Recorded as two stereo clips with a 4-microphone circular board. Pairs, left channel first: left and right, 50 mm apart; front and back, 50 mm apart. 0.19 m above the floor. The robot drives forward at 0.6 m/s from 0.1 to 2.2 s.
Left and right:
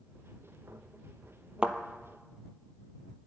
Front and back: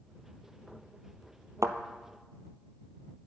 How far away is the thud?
About 0.8 m.